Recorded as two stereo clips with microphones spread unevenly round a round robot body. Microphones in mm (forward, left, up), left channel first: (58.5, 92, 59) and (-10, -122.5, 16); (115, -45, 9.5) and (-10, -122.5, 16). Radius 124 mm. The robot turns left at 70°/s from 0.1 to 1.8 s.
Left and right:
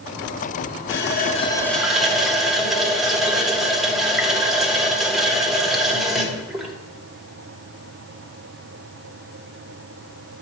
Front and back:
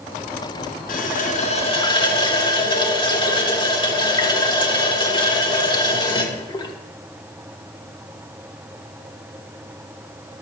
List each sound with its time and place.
0.9 s a running tap: 40° left, 1.0 m; by 6.8 s 25° right, 1.0 m